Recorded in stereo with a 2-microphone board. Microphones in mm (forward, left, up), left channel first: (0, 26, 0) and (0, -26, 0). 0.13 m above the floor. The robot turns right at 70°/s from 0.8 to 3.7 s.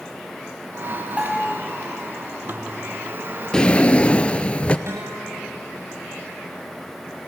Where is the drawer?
10° left (ahead or behind), 0.8 m; by 4.8 s 20° left (ahead or behind), 0.8 m.